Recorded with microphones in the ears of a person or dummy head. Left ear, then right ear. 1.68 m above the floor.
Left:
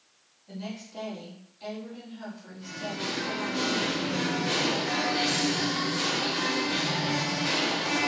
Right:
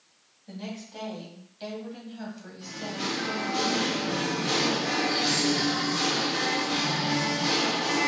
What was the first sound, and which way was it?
A woman speaking, 85° right.